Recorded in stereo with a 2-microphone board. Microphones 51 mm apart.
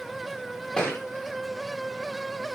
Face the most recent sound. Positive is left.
turn(degrees=15)  # may be behind; listen again after turning